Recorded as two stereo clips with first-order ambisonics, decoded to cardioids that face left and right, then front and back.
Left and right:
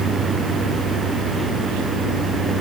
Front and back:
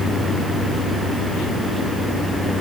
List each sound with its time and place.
Only background noise.